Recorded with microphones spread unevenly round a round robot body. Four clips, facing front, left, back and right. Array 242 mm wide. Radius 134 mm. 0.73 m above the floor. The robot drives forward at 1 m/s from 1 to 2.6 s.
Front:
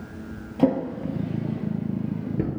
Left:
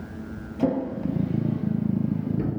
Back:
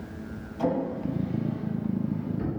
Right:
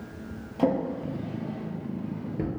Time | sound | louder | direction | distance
0.6 | a drawer | left 1 dB, front 5 dB | 10° left | 4.5 m